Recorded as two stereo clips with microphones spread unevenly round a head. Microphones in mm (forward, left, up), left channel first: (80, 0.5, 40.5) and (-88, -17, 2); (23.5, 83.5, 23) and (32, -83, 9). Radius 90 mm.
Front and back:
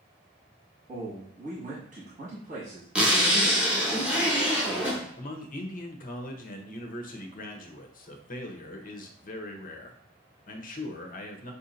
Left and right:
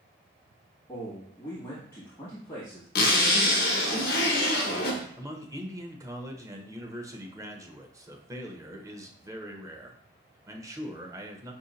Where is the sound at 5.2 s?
25° right, 0.8 m.